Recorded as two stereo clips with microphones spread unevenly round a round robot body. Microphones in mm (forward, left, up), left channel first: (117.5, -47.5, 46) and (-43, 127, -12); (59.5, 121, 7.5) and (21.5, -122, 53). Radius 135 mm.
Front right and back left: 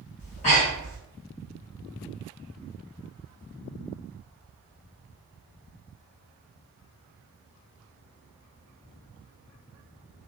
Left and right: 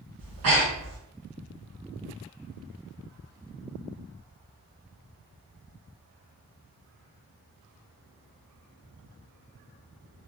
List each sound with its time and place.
0.2 s breathing: 115° right, 1.4 m